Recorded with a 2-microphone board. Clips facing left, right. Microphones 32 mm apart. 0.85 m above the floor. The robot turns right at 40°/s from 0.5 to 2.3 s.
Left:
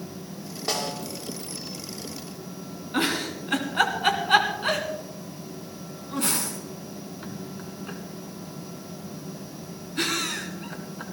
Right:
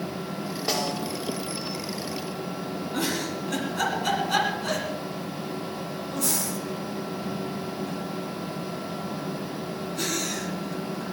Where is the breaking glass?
No breaking glass in this recording.